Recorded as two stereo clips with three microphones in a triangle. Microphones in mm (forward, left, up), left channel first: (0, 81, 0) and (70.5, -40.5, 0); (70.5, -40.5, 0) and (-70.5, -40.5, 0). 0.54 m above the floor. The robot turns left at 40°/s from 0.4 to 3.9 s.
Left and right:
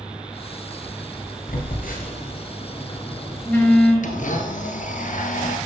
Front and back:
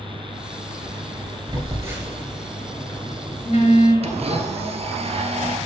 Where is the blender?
140° left, 1.8 m.